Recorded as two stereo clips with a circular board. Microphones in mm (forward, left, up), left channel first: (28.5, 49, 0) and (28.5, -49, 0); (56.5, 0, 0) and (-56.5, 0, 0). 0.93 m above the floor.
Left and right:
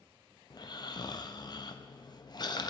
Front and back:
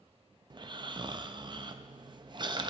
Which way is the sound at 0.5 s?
135° left.